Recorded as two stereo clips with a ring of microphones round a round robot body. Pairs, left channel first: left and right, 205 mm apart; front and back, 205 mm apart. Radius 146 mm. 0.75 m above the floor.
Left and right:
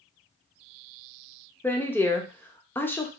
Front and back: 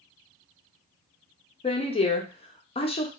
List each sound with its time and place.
1.6 s a woman speaking: 20° left, 0.6 m